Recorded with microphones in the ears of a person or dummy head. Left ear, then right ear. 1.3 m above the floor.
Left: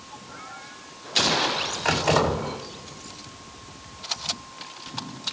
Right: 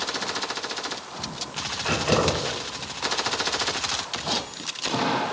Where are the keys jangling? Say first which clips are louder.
Left 1 dB; 50° left (ahead or behind), 3.5 m.